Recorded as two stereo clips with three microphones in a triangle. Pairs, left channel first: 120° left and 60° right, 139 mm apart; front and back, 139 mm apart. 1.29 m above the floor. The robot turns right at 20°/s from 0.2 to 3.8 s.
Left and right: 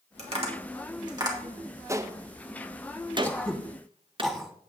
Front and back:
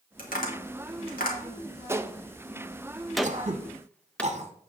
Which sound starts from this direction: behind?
Throat clearing, at 3.2 s.